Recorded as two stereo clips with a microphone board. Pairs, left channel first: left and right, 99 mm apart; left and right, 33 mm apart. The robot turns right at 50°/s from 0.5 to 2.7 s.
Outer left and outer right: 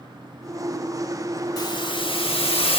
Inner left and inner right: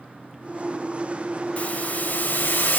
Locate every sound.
1.6 s a hiss: 40° left, 1.5 m; by 2.8 s 100° left, 1.5 m